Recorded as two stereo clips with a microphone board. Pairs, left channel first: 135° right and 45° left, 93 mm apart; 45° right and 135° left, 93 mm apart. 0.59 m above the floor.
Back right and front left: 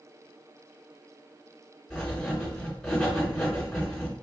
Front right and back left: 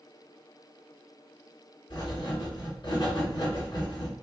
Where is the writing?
50° right, 1.8 m.